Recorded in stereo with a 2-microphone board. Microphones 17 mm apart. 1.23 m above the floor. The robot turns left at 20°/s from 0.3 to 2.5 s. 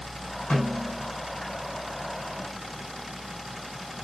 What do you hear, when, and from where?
0.5 s a snare drum: 80° left, 9 m; by 1.1 s 90° left, 9 m